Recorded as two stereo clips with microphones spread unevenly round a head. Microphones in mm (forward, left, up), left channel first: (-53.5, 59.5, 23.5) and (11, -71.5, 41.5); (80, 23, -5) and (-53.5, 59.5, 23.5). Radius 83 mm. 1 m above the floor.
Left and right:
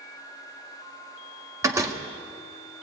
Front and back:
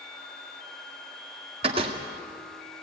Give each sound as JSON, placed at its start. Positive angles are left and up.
{"t": 1.6, "sound": "a door slam", "azimuth_deg": -135, "distance_m": 1.7}